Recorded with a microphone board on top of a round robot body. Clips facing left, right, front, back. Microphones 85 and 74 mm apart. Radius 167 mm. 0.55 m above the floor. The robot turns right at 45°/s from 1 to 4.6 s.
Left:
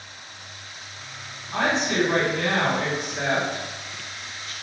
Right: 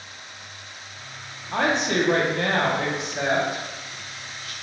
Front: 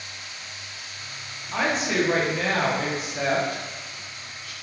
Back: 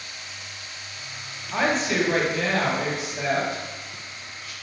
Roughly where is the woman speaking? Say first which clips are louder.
Right 1 dB, back 1 dB; right.